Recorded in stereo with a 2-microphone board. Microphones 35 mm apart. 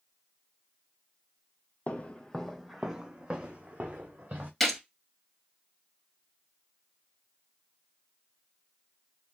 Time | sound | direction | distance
1.9 | footsteps | 45° left (ahead or behind) | 0.5 m
4.6 | a gunshot | 5° left (ahead or behind) | 1.1 m